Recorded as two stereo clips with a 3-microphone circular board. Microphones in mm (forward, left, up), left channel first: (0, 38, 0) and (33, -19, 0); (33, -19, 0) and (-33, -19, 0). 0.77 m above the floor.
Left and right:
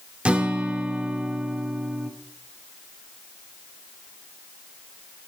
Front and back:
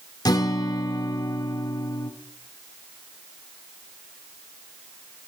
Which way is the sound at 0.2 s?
15° left.